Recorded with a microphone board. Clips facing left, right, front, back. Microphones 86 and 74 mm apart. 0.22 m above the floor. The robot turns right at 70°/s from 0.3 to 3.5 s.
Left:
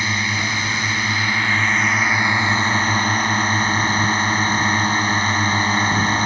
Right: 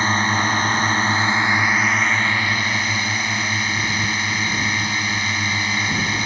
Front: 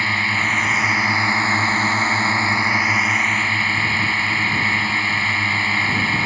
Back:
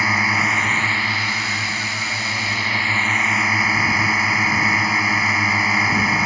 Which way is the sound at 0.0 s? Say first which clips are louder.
Right 4 dB, back 2 dB; 110° right.